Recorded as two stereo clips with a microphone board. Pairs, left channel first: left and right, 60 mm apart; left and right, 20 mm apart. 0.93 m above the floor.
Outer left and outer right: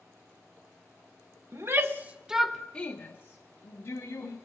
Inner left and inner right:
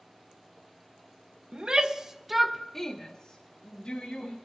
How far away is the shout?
About 1.0 m.